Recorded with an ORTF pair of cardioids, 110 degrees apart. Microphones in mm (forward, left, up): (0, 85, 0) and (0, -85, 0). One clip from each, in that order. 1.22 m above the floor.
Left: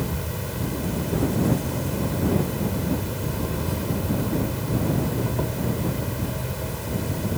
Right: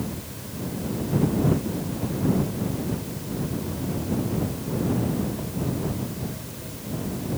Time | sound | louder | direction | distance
0.0 | an insect | left 5 dB | 65° left | ?